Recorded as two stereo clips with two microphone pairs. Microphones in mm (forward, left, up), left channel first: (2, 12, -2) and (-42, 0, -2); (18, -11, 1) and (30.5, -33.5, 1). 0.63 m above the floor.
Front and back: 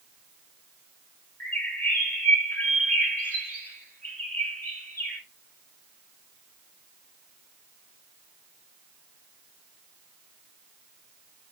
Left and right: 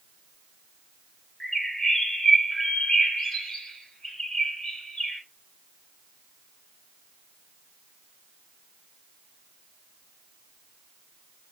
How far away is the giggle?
I don't hear a giggle.